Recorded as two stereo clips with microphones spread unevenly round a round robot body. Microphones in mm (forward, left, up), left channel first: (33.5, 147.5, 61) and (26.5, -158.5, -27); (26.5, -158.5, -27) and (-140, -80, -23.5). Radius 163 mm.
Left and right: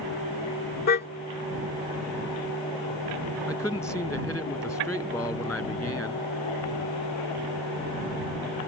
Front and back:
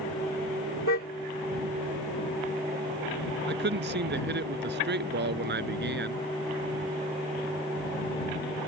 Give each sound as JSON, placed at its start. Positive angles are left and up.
{"t": 0.9, "sound": "a car horn", "azimuth_deg": 25}
{"t": 3.5, "sound": "a man speaking", "azimuth_deg": 175}